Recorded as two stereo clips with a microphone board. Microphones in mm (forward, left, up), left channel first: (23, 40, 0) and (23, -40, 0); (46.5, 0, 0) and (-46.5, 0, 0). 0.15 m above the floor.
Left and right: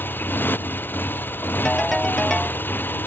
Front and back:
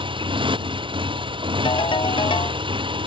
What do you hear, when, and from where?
0.0 s a motorcycle: 155° left
1.6 s a ringtone: 5° left